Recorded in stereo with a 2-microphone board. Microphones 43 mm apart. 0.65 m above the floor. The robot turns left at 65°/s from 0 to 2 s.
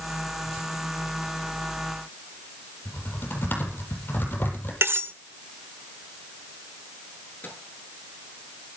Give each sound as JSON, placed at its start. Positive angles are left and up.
{"t": 2.9, "sound": "typing on a keyboard", "side_deg": 55, "distance_m": 9.0}
{"t": 4.8, "sound": "cutlery clinking", "side_deg": -75, "distance_m": 1.3}
{"t": 7.4, "sound": "a microwave", "side_deg": 45, "distance_m": 9.0}